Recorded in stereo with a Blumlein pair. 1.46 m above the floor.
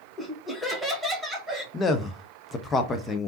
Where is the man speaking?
15° left, 0.6 m.